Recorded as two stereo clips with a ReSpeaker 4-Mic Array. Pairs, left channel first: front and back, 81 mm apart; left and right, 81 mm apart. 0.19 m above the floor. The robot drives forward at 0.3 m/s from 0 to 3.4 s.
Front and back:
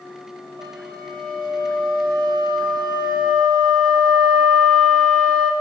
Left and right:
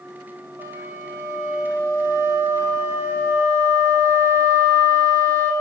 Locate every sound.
0.6 s a flute: 145° right, 3.5 m; by 5.5 s 150° right, 4.5 m